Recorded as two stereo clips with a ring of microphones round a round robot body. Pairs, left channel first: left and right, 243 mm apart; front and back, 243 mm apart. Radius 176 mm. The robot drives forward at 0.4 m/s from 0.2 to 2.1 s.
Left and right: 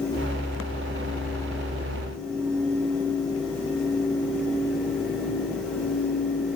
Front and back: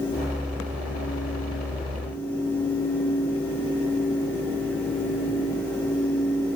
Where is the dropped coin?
No dropped coin in this recording.